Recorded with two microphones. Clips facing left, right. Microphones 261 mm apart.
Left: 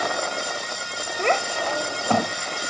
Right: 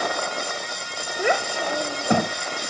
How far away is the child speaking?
About 0.8 m.